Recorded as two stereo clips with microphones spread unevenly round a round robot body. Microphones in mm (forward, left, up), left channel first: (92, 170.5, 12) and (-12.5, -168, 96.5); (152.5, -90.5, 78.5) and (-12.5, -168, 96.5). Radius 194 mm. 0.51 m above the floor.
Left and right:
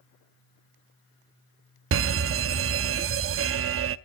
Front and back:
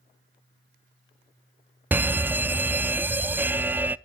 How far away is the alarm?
About 0.6 m.